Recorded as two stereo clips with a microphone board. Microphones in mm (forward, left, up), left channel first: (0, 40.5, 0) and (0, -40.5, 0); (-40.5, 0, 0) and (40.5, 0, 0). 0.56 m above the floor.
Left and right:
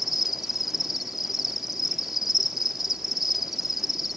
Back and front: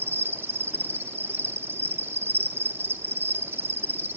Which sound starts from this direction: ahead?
An insect, at 0.0 s.